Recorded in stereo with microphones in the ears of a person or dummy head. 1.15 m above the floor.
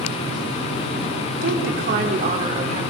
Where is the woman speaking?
65° right (ahead or behind), 3 m; by 2.8 s 35° right (ahead or behind), 3.5 m.